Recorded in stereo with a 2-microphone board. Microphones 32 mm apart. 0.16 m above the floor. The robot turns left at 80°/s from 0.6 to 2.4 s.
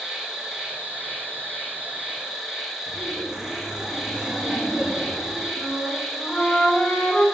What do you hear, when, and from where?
0.0 s an insect: 20° right, 0.8 m; by 7.3 s 165° right, 0.8 m
2.9 s laughter: 15° right (ahead or behind), 2.0 m
5.5 s a flute: 40° left (ahead or behind), 2.0 m